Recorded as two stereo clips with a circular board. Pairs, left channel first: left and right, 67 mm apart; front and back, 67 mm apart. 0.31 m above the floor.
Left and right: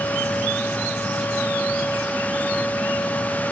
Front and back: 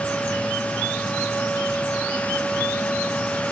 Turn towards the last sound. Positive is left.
No sound to turn to.